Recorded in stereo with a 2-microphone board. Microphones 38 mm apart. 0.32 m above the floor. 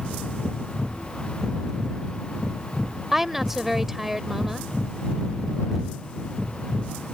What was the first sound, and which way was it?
A woman speaking, 10° right (ahead or behind).